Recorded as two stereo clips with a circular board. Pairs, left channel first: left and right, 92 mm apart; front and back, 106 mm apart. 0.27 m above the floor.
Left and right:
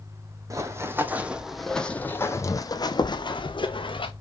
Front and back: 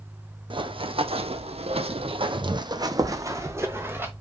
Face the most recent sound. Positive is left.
turn(degrees=110)